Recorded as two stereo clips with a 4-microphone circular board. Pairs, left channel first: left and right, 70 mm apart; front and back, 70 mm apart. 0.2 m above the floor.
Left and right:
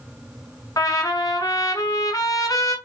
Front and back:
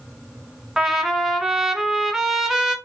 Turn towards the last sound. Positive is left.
turn(degrees=100)